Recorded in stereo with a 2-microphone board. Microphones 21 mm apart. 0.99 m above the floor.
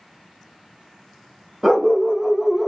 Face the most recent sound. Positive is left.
turn(degrees=0)  # may be behind; listen again after turning